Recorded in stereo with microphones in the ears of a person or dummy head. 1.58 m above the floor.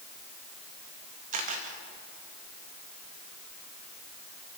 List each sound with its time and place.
1.3 s a camera shutter: 40° right (ahead or behind), 3 m